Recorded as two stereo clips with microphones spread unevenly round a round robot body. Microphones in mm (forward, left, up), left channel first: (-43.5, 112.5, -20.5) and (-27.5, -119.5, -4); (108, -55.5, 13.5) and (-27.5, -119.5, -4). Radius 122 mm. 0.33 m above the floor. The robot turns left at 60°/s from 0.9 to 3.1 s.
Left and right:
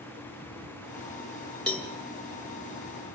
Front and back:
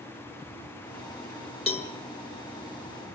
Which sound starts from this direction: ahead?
A cowbell, at 1.7 s.